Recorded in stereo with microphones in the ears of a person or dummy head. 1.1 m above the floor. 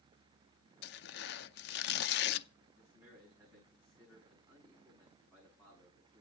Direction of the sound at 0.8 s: 65° left (ahead or behind).